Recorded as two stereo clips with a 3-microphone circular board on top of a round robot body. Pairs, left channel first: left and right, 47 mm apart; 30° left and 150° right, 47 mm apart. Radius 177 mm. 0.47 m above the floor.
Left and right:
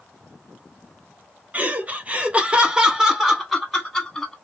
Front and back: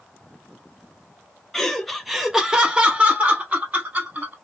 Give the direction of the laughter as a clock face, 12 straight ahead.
2 o'clock.